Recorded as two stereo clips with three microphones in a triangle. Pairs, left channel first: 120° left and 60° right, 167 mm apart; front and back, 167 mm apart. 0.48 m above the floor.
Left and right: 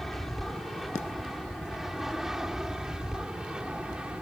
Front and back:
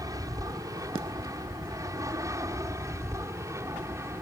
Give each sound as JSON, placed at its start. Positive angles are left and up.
{"t": 0.0, "sound": "an aircraft", "azimuth_deg": -155}